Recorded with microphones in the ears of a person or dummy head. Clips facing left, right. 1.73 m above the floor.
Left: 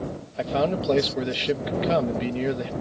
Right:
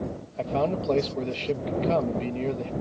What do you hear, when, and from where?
0.4 s a man speaking: 15° left (ahead or behind)